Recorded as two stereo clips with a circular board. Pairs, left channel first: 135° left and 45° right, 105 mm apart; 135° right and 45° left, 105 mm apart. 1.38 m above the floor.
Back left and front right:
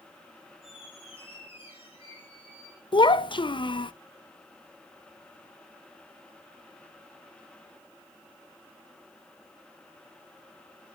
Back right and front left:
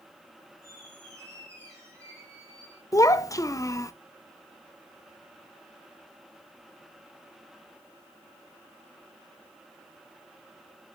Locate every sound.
0.6 s a squeak: 105° left, 4.5 m
2.9 s a child speaking: 170° left, 0.5 m